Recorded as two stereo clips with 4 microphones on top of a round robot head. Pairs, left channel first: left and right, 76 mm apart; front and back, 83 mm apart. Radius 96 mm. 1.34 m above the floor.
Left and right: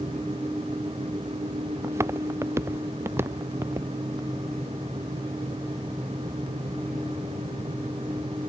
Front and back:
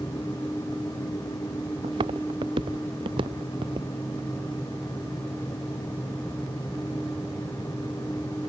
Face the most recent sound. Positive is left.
turn(degrees=-160)